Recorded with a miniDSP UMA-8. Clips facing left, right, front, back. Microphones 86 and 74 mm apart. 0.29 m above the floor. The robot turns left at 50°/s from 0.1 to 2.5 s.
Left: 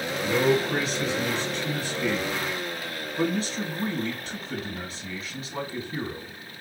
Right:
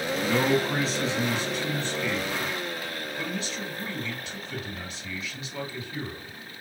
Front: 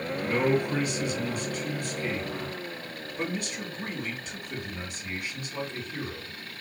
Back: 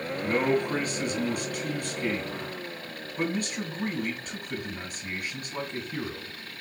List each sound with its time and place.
0.2 s a man speaking: 105° right, 3 m; by 6.3 s 140° left, 3 m